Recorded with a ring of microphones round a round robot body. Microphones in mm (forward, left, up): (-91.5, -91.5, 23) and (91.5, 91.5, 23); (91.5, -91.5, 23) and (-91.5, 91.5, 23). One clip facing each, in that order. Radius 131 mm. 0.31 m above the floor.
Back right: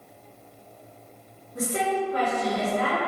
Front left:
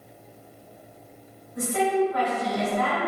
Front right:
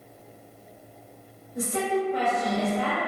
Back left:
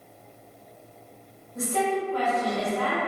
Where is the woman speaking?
110° right, 1.0 m.